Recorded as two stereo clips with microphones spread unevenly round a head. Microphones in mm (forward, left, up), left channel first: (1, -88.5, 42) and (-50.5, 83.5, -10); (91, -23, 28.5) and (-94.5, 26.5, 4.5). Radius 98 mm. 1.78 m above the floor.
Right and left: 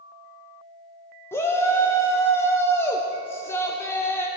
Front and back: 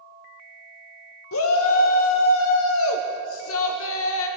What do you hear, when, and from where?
1.3 s a shout: straight ahead, 1.1 m